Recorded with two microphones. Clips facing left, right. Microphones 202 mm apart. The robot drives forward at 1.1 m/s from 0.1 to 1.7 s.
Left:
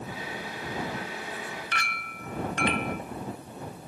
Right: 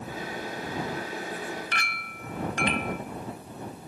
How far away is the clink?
About 0.9 m.